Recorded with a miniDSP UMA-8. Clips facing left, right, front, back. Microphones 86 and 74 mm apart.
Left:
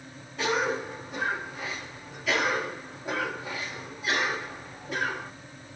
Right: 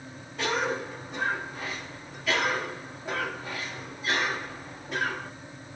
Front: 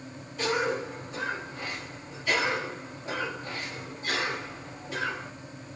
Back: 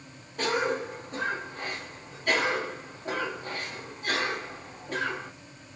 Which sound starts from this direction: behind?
A cough, at 0.4 s.